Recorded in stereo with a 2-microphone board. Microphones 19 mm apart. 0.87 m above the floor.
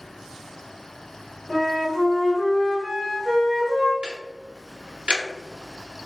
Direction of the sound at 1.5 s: 35° left (ahead or behind).